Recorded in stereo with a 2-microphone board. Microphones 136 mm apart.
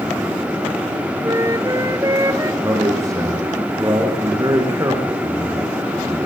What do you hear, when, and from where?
1.2 s a flute: 25° right (ahead or behind), 1.1 m
2.6 s a man speaking: 25° right (ahead or behind), 5 m